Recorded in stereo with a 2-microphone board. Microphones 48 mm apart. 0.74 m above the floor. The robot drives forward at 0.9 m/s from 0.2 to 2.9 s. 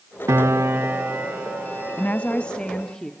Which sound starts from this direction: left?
A woman speaking, at 2.0 s.